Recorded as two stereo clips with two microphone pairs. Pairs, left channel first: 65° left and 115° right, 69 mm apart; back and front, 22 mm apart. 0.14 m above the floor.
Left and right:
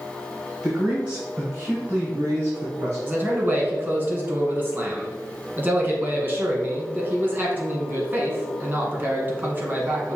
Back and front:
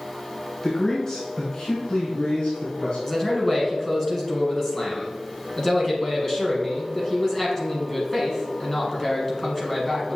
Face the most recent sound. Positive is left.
turn(degrees=-130)